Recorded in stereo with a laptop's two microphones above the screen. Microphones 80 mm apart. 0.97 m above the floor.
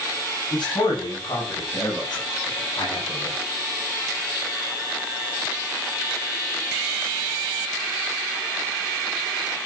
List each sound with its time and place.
0.5 s a man speaking: 70° left (ahead or behind), 8.5 m; by 3.4 s 45° left (ahead or behind), 7 m